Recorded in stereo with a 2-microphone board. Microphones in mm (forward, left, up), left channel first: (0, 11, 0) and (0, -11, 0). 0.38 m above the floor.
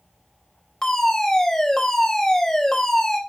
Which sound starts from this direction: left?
A fire alarm, at 0.8 s.